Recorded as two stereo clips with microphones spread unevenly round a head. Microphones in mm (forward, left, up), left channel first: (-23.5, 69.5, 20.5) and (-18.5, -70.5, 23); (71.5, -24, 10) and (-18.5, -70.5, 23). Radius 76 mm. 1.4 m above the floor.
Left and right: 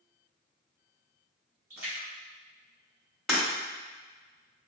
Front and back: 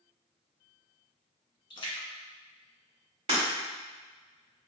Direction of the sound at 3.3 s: Straight behind.